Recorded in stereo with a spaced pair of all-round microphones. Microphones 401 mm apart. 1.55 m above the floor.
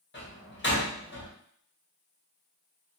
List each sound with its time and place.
0.1 s a door slam: 30° left (ahead or behind), 0.9 m